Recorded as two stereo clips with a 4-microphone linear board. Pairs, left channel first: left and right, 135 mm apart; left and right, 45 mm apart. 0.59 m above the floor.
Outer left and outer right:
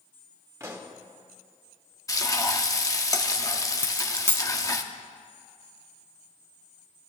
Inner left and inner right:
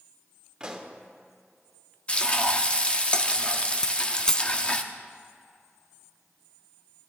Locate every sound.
0.6 s a pop: 20° right (ahead or behind), 1.8 m
2.1 s frying: 25° left (ahead or behind), 1.1 m
3.8 s a dropped coin: 15° left (ahead or behind), 0.6 m